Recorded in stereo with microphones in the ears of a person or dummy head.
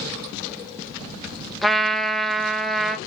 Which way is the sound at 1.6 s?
Centre (ahead or behind).